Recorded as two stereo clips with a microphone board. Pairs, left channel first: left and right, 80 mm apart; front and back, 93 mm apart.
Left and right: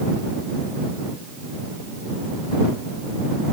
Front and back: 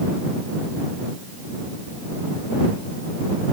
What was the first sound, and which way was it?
Only background noise.